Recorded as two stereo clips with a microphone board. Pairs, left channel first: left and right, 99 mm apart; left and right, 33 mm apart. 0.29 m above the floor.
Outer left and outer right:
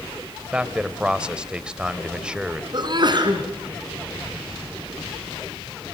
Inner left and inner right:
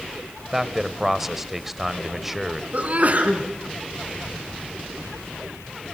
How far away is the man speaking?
About 1.0 m.